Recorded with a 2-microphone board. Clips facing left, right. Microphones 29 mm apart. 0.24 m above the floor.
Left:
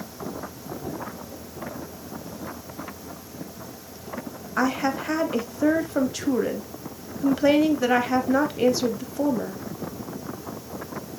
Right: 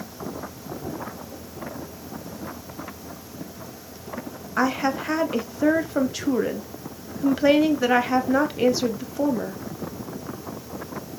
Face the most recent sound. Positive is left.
turn(degrees=-10)  # may be behind; listen again after turning